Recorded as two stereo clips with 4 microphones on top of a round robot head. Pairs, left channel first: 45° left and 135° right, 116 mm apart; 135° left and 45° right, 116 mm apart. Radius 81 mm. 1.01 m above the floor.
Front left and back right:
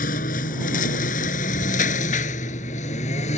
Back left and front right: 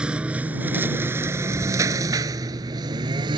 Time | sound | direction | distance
0.0 | a lawn mower | 35° left | ?